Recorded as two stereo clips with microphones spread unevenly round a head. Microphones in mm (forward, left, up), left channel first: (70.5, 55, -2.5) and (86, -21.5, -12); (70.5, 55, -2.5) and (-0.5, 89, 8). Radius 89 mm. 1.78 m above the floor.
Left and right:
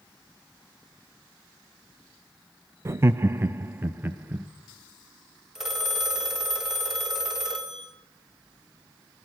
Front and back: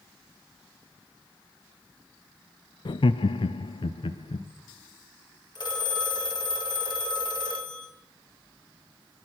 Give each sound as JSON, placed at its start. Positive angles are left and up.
{"t": 2.9, "sound": "laughter", "azimuth_deg": -25, "distance_m": 0.5}
{"t": 5.5, "sound": "a phone ringing", "azimuth_deg": 5, "distance_m": 4.0}